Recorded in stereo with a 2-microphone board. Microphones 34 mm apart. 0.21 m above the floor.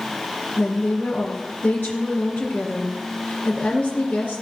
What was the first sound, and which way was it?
A woman speaking, 50° left (ahead or behind).